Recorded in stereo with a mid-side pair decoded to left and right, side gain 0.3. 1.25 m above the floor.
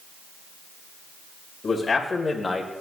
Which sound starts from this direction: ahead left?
A man speaking, at 1.6 s.